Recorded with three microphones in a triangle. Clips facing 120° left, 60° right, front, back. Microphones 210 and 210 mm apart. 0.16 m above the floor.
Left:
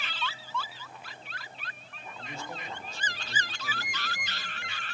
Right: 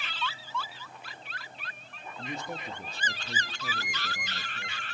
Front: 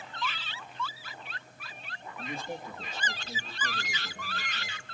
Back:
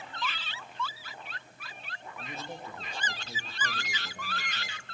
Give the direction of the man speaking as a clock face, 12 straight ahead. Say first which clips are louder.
Right 4 dB, front 4 dB; 2 o'clock.